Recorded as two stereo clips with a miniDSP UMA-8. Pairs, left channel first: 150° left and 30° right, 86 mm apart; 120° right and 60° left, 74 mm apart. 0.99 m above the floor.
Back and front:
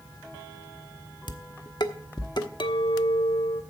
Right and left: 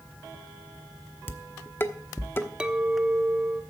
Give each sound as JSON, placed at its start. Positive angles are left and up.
{"t": 1.3, "sound": "dishes clattering", "azimuth_deg": 180, "distance_m": 1.0}
{"t": 2.6, "sound": "a clink", "azimuth_deg": 135, "distance_m": 1.0}